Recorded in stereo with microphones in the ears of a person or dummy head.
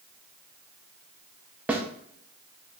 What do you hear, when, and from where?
1.7 s a snare drum: 5° right (ahead or behind), 0.5 m